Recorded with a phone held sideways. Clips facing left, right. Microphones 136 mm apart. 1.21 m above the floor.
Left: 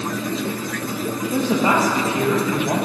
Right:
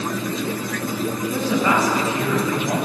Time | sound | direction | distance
1.3 | a woman speaking | 25° left (ahead or behind) | 1.6 m